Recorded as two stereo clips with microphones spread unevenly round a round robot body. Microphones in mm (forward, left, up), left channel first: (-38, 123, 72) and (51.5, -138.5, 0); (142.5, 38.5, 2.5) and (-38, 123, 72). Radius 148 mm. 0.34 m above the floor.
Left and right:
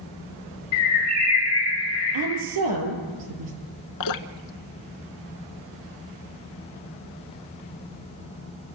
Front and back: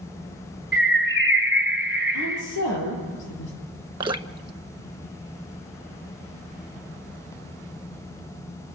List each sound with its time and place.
0.7 s a bird: 70° left, 2.5 m
2.1 s a woman speaking: 50° right, 7 m
4.0 s dripping: 85° left, 1.2 m